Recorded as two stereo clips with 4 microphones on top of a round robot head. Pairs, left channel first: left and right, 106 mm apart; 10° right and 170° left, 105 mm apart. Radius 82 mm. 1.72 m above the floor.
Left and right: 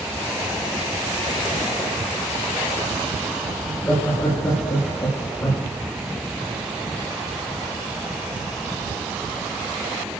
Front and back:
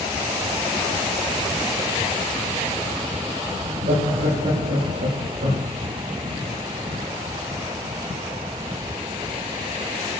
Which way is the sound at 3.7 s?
160° left.